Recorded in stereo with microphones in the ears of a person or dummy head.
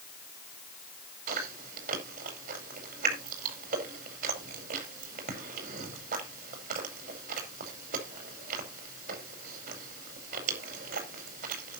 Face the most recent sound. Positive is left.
turn(degrees=-50)  # may be behind; listen again after turning